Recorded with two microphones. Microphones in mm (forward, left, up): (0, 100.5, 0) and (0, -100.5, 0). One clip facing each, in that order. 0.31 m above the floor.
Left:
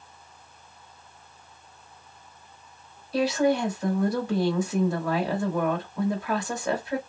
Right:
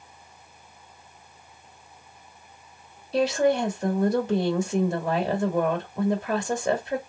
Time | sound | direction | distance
3.1 | a woman speaking | 25° right (ahead or behind) | 1.1 m